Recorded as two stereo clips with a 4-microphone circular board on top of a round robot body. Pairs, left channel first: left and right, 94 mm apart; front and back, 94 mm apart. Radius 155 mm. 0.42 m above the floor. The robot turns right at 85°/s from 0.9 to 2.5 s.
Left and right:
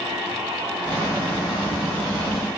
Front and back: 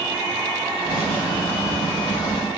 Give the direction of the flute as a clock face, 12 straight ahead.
I don't hear a flute.